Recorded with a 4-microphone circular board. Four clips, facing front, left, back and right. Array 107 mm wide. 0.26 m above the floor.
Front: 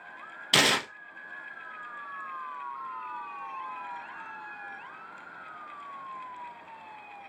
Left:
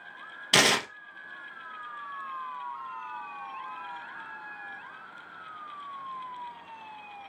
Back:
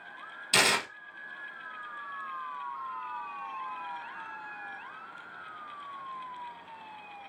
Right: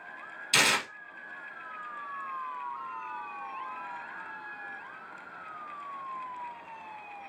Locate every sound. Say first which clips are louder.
0.5 s tearing paper: left 4 dB, front 2 dB; 50° left, 0.9 m